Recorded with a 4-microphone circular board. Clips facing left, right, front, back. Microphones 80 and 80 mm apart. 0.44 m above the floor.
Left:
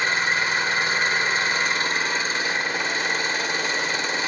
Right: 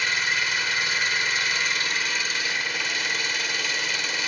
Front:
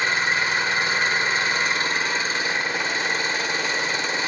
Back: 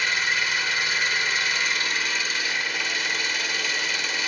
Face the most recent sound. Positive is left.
turn(degrees=45)